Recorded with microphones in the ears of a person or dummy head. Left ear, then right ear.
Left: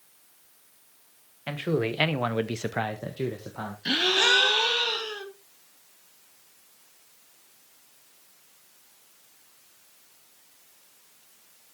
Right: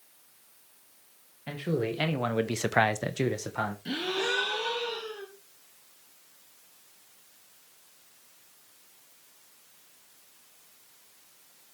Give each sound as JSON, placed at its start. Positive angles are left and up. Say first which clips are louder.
{"t": 1.5, "sound": "a man speaking", "louder": "left 3 dB", "side_deg": 40, "distance_m": 1.5}
{"t": 3.9, "sound": "a gasp", "louder": "left 12 dB", "side_deg": 40, "distance_m": 1.5}